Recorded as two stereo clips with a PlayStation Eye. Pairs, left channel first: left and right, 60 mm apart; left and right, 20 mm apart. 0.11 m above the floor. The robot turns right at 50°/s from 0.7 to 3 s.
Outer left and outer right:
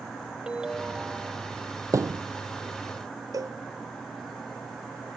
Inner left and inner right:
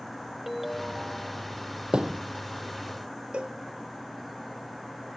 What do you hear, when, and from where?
0.5 s a ringtone: 15° right (ahead or behind); by 1.8 s 20° right (ahead or behind)
1.9 s a thud: 65° right (ahead or behind); by 2.2 s 75° right (ahead or behind)
3.3 s a cowbell: 85° right